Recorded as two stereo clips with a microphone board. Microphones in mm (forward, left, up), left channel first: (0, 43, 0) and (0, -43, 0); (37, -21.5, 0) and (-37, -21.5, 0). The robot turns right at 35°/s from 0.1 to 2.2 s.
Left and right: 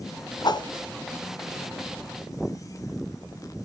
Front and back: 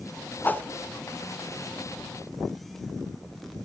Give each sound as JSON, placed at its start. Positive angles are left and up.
{"t": 0.4, "sound": "a whoosh", "azimuth_deg": 60, "distance_m": 0.9}